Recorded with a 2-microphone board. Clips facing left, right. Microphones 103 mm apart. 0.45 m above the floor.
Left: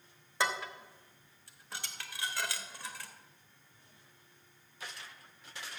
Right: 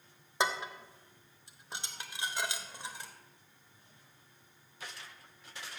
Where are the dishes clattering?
20° right (ahead or behind), 0.9 m.